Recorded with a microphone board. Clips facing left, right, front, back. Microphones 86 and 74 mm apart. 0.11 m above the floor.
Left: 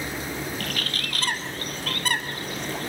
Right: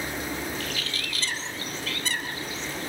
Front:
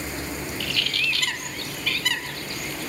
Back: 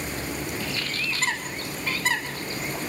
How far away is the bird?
About 2 m.